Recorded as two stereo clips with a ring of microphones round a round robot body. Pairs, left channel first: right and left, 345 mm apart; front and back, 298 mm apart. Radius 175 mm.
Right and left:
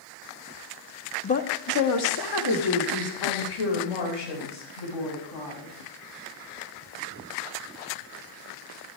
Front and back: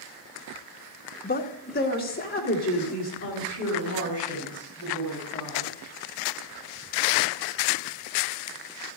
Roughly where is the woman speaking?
Ahead right.